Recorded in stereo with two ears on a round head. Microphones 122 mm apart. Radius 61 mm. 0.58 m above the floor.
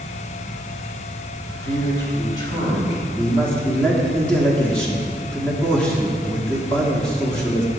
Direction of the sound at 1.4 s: 20° left (ahead or behind).